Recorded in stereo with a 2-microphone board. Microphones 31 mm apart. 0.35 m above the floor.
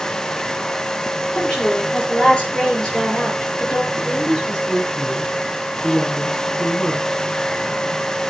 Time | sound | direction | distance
1.3 | a woman speaking | 30° left (ahead or behind) | 9 m
3.9 | a woman speaking | 15° left (ahead or behind) | 4 m